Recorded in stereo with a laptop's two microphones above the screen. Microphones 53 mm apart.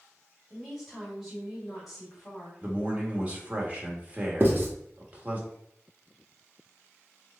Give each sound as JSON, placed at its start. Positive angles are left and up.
{"t": 0.5, "sound": "a woman speaking", "side_deg": 0, "distance_m": 1.7}
{"t": 2.6, "sound": "a man speaking", "side_deg": -30, "distance_m": 1.2}
{"t": 4.4, "sound": "writing", "side_deg": -40, "distance_m": 0.7}